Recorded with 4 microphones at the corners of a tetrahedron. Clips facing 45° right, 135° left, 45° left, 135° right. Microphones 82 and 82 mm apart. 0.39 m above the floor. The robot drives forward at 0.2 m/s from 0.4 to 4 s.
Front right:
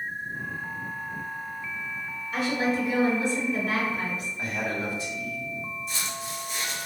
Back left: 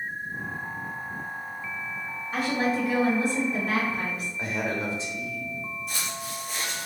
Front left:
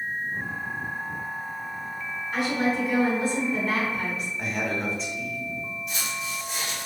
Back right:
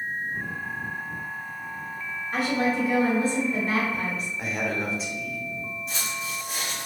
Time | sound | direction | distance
2.3 | a woman speaking | straight behind | 1.9 m
4.4 | a man speaking | 140° left | 0.8 m
5.9 | footsteps | 170° left | 1.6 m